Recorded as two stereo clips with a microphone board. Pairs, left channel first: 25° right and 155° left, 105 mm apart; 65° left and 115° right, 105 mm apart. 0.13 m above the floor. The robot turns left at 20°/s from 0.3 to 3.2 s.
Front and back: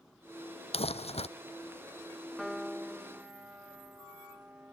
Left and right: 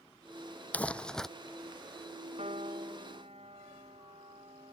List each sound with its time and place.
0.7 s crumpling: 10° right; by 1.3 s 20° right
2.4 s a piano: 115° right; by 4.8 s 130° right